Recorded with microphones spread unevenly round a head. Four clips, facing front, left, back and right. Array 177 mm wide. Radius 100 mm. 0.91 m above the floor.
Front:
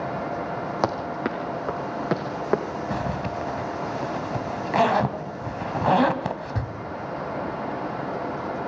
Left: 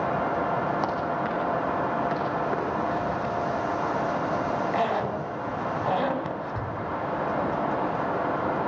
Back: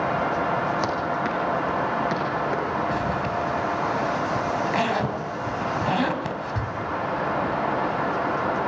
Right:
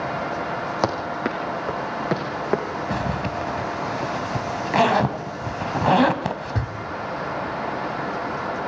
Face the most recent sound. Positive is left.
turn(degrees=-80)